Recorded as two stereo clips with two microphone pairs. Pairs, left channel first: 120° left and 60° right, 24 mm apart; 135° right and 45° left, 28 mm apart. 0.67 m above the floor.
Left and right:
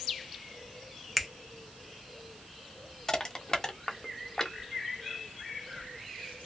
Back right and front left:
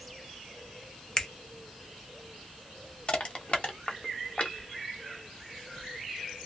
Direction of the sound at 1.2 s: 140° right.